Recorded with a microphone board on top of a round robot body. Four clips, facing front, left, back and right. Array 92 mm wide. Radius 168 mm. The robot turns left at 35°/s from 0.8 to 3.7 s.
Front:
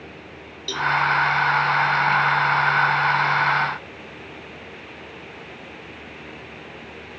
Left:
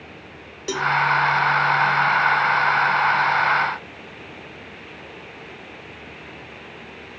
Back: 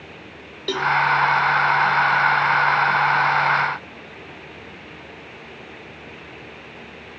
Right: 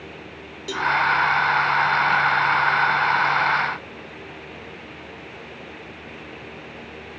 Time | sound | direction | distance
0.7 | a cowbell | 150° left | 1.2 m